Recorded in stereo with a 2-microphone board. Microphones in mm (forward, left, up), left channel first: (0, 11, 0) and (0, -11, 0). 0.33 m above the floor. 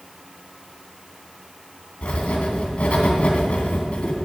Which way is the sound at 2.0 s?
60° left (ahead or behind).